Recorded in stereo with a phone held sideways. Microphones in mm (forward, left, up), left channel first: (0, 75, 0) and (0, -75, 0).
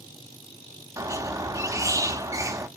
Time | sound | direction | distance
1.0 | a squeak | 20° right (ahead or behind) | 0.8 m